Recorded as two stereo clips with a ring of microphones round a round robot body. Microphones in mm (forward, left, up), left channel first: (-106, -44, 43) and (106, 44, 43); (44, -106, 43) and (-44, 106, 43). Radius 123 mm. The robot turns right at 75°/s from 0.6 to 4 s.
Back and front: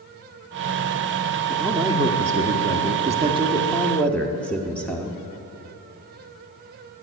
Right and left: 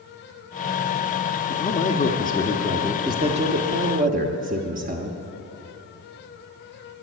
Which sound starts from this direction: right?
A man speaking, at 1.5 s.